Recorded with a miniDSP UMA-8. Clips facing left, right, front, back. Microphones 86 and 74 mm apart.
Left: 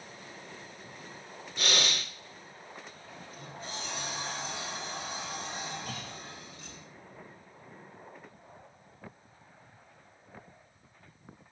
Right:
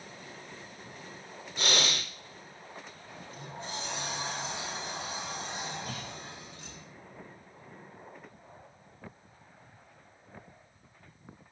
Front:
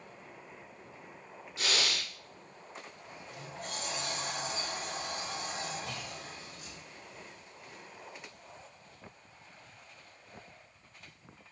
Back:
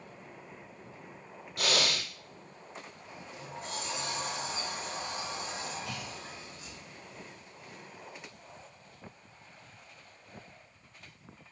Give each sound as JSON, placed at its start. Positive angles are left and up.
{"t": 1.6, "sound": "breathing", "azimuth_deg": -150, "distance_m": 1.1}
{"t": 3.1, "sound": "a sliding door", "azimuth_deg": -25, "distance_m": 1.5}
{"t": 5.9, "sound": "a clunk", "azimuth_deg": -50, "distance_m": 2.5}